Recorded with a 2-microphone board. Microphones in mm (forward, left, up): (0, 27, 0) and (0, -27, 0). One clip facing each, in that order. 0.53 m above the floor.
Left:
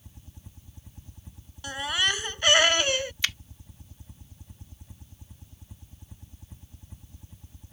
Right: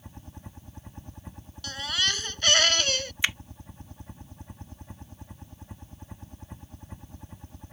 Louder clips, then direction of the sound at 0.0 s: Right 7 dB; 50° right (ahead or behind).